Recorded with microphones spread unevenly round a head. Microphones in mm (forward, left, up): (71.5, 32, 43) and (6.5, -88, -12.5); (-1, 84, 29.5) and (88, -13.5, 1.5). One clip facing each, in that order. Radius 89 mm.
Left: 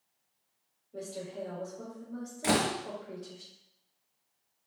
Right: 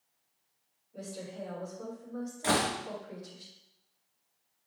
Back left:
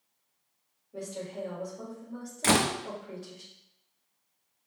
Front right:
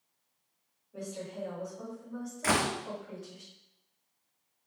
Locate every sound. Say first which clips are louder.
0.9 s a woman speaking: left 2 dB, back left 2 dB; 80° left, 4 m
2.4 s a door slam: left 2 dB, back left 4 dB; 100° left, 0.5 m